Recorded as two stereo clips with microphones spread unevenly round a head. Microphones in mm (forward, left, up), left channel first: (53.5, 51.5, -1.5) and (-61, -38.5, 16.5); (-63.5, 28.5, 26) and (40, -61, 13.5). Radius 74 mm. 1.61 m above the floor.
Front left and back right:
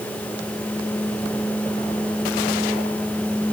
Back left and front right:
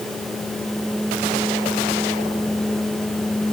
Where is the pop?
No pop in this recording.